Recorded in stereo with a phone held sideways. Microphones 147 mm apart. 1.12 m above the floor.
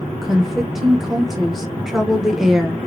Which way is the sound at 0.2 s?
Centre (ahead or behind).